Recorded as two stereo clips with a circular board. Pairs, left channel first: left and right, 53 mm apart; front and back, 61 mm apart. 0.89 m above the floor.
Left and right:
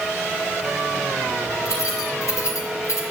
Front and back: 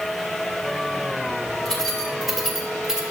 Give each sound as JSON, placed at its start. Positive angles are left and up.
{"t": 1.6, "sound": "keys jangling", "azimuth_deg": 80, "distance_m": 3.5}